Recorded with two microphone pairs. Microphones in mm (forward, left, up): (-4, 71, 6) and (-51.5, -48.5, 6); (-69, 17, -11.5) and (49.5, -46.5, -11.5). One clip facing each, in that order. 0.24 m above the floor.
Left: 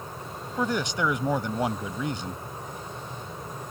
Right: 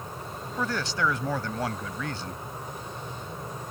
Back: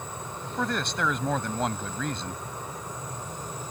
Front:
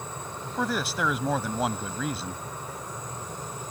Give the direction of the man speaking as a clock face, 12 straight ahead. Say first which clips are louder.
Left 2 dB, front 1 dB; 11 o'clock.